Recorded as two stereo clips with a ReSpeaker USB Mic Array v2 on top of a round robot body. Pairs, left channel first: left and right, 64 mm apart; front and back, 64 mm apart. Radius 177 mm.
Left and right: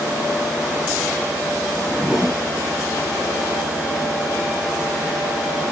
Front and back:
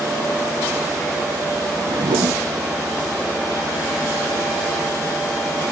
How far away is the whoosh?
About 0.6 m.